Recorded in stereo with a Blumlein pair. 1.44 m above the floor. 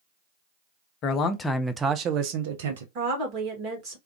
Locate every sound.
1.0 s a man speaking: 35° left, 0.7 m; by 2.9 s 65° right, 1.0 m
3.0 s a woman speaking: 30° right, 1.9 m